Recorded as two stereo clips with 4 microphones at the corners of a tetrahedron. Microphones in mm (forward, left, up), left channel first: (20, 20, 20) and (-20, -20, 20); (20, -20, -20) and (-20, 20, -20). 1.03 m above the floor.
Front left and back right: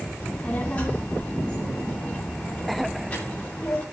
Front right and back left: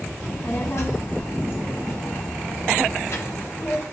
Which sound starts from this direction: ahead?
A child speaking, at 0.2 s.